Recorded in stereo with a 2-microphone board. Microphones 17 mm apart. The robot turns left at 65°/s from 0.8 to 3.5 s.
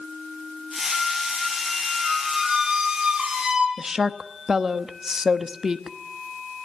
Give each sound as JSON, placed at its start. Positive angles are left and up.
{"t": 0.9, "sound": "a squeak", "azimuth_deg": 70, "distance_m": 4.0}
{"t": 3.8, "sound": "a woman speaking", "side_deg": -30, "distance_m": 1.0}